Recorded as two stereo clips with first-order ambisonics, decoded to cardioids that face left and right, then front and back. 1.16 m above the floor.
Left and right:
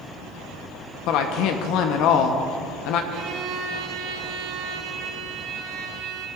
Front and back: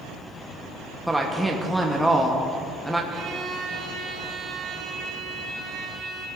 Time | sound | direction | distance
1.1 | a woman speaking | 95° left | 0.7 m
3.1 | a violin | 125° right | 1.2 m